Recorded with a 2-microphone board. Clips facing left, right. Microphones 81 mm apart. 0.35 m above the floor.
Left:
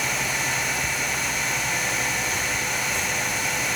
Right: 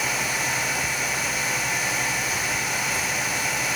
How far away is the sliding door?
I don't hear a sliding door.